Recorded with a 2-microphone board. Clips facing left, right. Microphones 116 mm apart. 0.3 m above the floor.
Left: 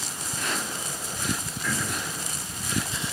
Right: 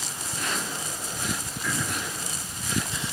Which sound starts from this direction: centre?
Throat clearing, at 1.6 s.